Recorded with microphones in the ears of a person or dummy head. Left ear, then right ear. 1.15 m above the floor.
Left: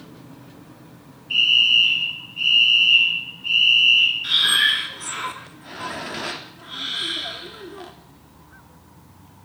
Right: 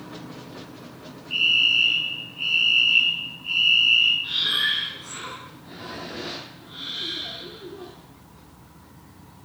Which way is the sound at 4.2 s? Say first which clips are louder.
Left 6 dB; 40° left (ahead or behind).